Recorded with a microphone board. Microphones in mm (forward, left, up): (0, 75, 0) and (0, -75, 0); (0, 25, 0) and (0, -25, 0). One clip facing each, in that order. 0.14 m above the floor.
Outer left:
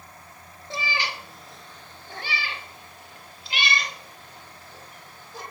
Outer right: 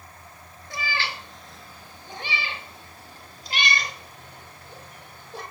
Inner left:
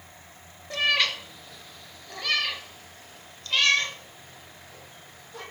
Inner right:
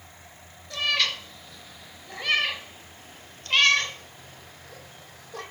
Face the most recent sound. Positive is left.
turn(degrees=-55)  # may be behind; listen again after turning